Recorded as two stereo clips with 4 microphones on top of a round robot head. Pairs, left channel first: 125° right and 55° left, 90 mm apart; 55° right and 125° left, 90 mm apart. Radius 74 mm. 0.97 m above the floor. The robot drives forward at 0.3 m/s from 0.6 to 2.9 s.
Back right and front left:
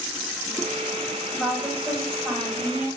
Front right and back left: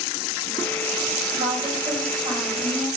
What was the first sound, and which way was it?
A woman speaking, 155° left.